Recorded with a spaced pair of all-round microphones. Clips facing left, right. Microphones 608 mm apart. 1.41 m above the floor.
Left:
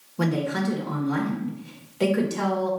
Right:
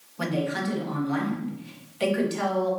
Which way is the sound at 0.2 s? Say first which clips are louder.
Left 3 dB; 65° left (ahead or behind).